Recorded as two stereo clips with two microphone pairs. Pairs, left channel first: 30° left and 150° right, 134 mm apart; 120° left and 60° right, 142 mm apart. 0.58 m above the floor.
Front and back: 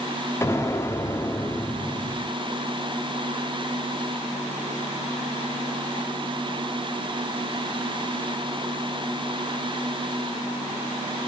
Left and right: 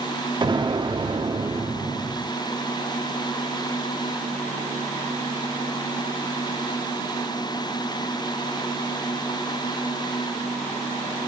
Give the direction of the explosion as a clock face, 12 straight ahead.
1 o'clock.